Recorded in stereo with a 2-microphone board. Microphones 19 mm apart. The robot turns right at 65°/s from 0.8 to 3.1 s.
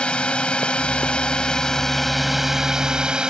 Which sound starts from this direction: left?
A drone, at 0.0 s.